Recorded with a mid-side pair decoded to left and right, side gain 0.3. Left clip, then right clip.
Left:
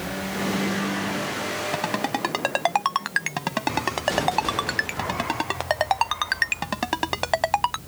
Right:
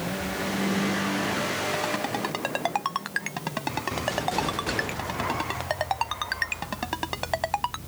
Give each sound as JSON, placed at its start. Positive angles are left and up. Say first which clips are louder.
{"t": 1.7, "sound": "a ringtone", "louder": "left 2 dB", "azimuth_deg": 50}